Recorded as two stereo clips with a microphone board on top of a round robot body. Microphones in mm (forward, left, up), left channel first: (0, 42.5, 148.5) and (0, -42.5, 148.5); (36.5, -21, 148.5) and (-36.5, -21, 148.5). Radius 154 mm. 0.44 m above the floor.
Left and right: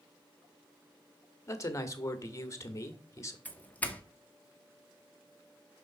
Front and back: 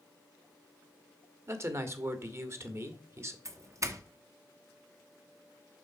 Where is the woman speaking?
135° left, 1.6 m.